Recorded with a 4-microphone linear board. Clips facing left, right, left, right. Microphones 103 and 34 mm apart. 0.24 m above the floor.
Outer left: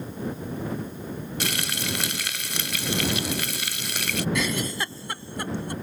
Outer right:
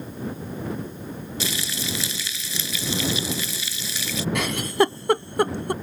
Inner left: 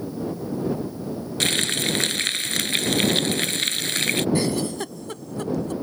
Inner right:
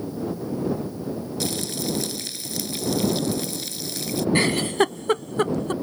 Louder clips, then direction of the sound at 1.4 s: Even, inner left 7 dB; 60° left (ahead or behind).